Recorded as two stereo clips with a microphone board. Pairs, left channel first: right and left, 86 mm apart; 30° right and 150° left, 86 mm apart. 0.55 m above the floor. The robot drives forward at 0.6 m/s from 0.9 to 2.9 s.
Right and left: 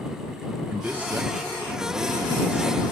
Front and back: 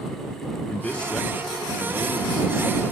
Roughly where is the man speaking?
Ahead left.